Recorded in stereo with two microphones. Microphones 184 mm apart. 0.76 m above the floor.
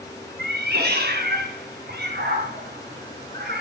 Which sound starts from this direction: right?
A cat meowing, at 0.4 s.